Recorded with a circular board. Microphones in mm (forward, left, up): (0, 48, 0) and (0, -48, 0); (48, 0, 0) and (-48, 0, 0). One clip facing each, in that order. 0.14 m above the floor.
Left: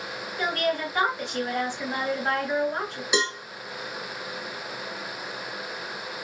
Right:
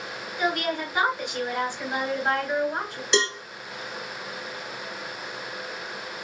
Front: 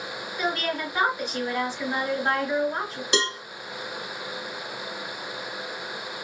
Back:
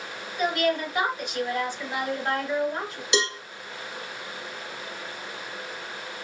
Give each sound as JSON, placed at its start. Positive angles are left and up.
{"t": 0.4, "sound": "a woman speaking", "azimuth_deg": -20, "distance_m": 1.6}
{"t": 3.1, "sound": "a cowbell", "azimuth_deg": 10, "distance_m": 1.2}